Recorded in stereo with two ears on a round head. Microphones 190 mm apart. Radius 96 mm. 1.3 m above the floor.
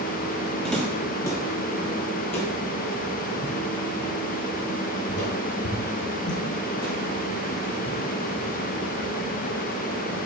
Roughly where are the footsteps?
Centre.